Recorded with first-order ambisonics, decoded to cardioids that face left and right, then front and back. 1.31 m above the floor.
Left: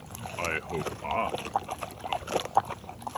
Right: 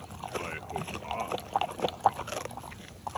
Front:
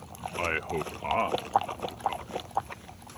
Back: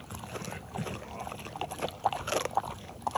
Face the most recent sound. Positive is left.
turn(degrees=25)